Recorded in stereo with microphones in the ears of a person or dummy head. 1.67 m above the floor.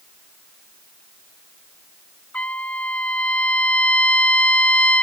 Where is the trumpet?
5° left (ahead or behind).